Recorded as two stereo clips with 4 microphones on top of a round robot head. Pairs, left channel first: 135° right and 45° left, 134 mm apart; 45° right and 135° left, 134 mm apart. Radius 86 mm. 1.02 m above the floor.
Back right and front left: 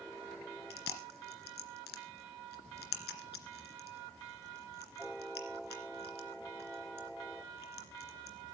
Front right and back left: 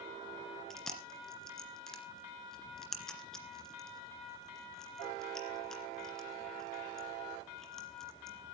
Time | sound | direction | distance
0.7 | chewing | 130° right | 2.5 m